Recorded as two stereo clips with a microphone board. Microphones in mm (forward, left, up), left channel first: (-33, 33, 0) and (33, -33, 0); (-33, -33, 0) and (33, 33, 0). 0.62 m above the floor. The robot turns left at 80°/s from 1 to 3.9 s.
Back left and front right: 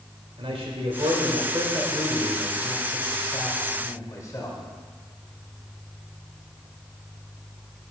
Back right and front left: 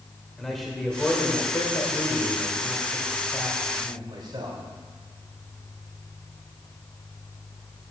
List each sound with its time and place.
0.4 s a man speaking: 45° right, 2 m; by 4.6 s 80° left, 2 m